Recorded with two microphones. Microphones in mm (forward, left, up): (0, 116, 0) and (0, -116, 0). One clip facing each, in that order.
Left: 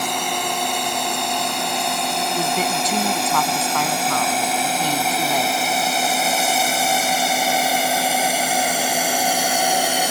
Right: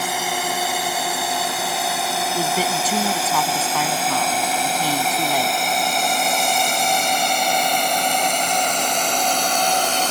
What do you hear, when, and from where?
0.0 s a drone: 5° right (ahead or behind); by 10.1 s 10° left (ahead or behind)
2.3 s a woman speaking: 5° right (ahead or behind)